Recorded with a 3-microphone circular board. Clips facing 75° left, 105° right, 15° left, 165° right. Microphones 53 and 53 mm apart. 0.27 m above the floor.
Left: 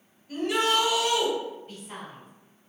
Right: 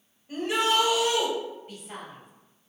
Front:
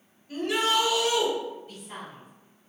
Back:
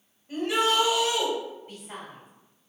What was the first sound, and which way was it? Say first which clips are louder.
A shout: even, back 1 dB; 125° right.